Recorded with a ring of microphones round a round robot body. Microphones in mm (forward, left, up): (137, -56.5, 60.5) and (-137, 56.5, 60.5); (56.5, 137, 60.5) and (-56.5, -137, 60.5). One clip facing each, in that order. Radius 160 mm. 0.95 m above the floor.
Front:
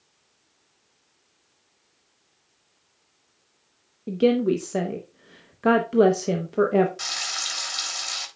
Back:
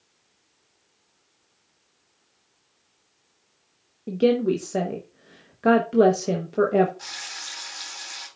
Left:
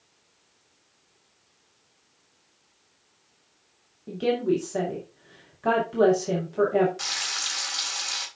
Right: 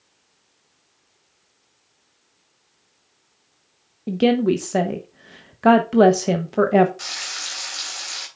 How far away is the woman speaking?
About 0.9 m.